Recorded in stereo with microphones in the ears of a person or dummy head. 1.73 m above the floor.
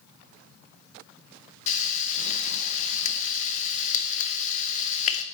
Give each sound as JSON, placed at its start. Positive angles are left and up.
{"t": 1.7, "sound": "frying", "side_deg": 40, "distance_m": 0.6}